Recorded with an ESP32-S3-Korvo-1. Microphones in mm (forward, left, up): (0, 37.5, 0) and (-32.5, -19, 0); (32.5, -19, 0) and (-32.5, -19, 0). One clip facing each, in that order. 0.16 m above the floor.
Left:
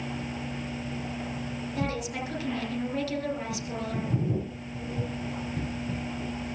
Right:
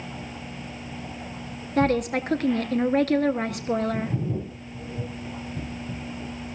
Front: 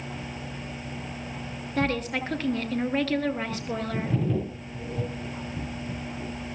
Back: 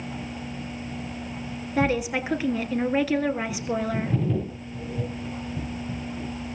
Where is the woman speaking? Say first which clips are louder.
Right 11 dB, back 3 dB; 100° right, 2 m.